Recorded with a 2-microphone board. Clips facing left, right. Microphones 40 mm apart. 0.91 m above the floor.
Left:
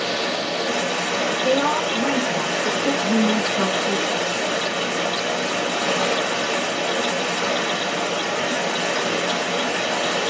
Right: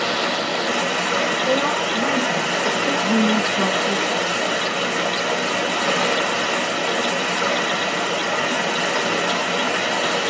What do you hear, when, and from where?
0.0 s running water: 65° right (ahead or behind), 1.1 m
1.4 s a woman speaking: 55° left (ahead or behind), 0.9 m
3.0 s a woman speaking: 20° right (ahead or behind), 0.8 m